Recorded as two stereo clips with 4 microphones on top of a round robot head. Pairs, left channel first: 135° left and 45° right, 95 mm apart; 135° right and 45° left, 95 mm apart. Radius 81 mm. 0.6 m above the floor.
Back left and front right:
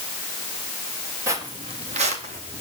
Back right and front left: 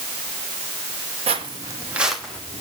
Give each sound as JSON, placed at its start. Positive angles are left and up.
{"t": 1.3, "sound": "footsteps", "azimuth_deg": 20, "distance_m": 1.4}